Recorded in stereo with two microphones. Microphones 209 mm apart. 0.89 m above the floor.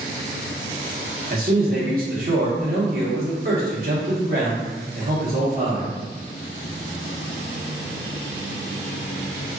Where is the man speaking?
45° right (ahead or behind), 1.2 m.